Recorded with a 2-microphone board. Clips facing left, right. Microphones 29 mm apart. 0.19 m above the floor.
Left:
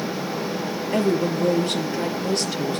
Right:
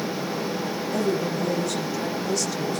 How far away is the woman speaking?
About 4.5 m.